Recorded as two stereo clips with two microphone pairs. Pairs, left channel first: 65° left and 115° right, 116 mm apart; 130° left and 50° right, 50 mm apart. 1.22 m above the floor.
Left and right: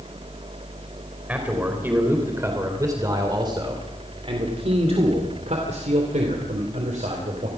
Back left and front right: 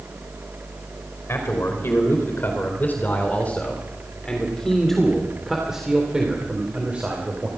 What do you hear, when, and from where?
1.3 s a man speaking: 170° left, 4.5 m; by 7.5 s 110° right, 4 m